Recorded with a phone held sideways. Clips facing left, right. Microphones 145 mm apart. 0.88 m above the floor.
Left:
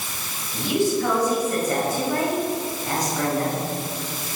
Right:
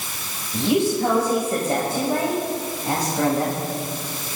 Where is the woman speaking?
30° right (ahead or behind), 6 m.